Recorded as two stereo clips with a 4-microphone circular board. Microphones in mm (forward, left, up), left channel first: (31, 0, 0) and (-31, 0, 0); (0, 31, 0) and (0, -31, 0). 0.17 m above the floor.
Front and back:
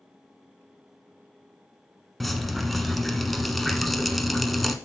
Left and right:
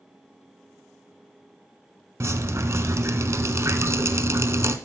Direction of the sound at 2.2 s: 90° right.